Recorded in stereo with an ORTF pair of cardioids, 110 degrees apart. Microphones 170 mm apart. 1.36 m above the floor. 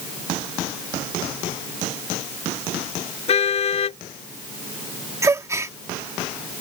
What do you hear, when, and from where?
3.3 s a car horn: 40° left
5.2 s a gasp: 20° right